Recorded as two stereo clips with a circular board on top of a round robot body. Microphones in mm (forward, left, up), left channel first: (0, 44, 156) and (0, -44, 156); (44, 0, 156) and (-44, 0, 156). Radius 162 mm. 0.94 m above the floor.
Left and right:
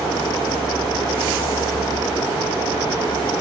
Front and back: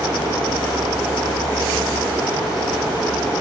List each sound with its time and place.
Only background noise.